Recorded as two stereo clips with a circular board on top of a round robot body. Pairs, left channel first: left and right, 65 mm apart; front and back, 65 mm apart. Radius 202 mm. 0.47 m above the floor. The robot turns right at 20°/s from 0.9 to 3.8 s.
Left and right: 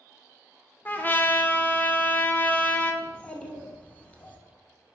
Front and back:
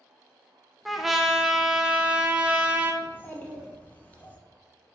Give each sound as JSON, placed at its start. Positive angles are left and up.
{"t": 0.8, "sound": "a trumpet", "azimuth_deg": 95, "distance_m": 0.6}
{"t": 3.0, "sound": "a child speaking", "azimuth_deg": 25, "distance_m": 0.8}